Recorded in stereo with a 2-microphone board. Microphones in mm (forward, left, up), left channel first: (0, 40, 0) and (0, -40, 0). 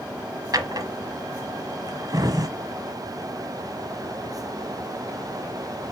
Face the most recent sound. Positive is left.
turn(degrees=-55)  # may be behind; listen again after turning